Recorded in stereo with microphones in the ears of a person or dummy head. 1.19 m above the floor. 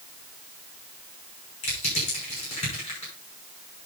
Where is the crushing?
35° left (ahead or behind), 6 m.